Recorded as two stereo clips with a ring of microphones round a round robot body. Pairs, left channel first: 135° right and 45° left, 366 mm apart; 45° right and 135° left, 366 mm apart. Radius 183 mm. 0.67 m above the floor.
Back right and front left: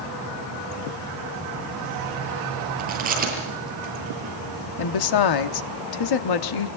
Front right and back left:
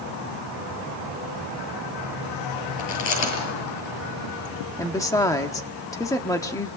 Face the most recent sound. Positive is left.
turn(degrees=-125)